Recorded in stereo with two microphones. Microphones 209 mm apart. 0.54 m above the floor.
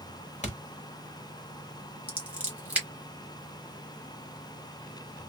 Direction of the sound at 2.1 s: 5° right (ahead or behind).